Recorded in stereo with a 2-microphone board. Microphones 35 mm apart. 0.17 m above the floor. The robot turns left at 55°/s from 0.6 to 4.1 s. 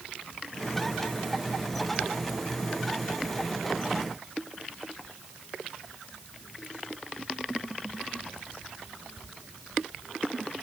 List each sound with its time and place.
Only background noise.